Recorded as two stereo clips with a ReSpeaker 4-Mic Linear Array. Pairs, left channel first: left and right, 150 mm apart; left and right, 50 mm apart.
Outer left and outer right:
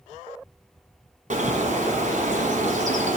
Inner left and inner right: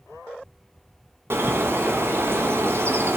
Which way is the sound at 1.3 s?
65° right (ahead or behind).